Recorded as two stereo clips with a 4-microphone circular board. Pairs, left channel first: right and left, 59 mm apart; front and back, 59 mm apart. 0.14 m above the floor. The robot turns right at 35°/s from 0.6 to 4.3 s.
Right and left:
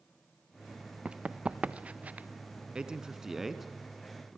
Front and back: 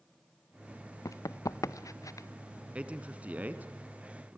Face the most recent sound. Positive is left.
turn(degrees=-165)